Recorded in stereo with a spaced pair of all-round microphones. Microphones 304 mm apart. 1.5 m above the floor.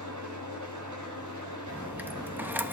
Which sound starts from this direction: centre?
A dropped coin, at 1.7 s.